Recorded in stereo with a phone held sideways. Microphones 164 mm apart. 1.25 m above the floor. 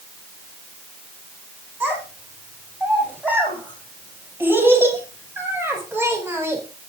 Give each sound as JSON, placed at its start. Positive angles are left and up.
{"t": 1.8, "sound": "a child speaking", "side_deg": -10, "distance_m": 9.0}